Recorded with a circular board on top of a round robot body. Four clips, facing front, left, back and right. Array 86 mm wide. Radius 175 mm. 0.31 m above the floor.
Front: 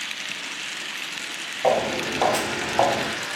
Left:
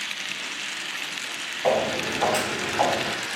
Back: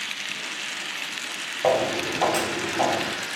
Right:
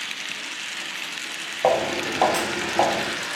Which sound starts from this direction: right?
Footsteps, at 1.6 s.